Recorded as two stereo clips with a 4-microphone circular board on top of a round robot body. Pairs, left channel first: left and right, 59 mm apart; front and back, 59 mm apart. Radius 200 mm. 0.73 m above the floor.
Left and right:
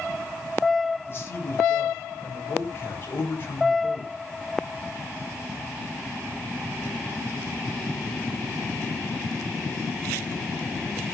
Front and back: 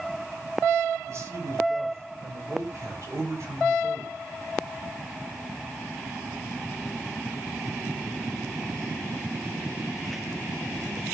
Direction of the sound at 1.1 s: 145° left.